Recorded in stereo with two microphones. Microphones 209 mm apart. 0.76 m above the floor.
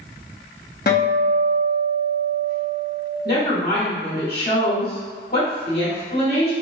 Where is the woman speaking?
50° left (ahead or behind), 1.7 m.